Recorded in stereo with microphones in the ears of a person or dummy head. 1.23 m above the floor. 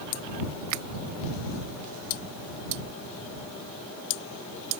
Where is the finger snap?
75° right (ahead or behind).